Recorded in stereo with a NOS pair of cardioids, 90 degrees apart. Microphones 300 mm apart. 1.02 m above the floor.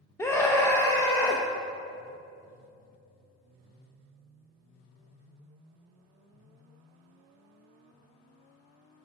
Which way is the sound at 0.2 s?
10° left.